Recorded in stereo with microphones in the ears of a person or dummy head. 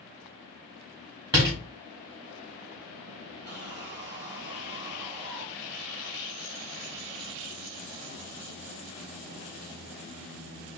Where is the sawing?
20° right (ahead or behind), 0.8 m.